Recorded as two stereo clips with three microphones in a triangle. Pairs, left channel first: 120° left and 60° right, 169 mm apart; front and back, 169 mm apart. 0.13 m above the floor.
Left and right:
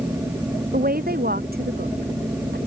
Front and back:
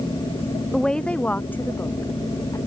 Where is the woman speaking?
85° right; by 2.6 s 70° right.